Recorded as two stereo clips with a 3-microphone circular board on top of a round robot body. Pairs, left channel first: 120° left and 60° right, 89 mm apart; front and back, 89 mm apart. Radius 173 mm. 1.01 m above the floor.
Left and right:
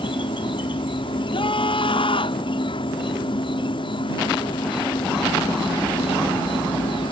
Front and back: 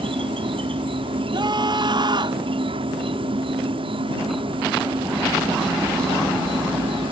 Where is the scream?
145° left.